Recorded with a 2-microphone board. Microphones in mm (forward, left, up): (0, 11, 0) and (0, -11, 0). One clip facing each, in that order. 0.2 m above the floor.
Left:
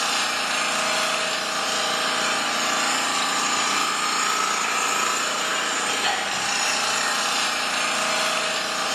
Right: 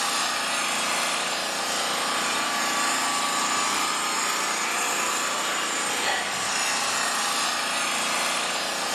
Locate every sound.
0.0 s an engine running: 30° left (ahead or behind), 1.0 m